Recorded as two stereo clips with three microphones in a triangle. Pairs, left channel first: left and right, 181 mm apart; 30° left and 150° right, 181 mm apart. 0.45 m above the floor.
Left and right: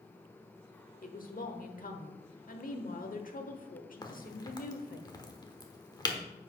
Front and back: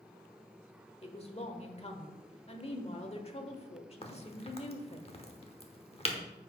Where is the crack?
40° left, 1.0 m.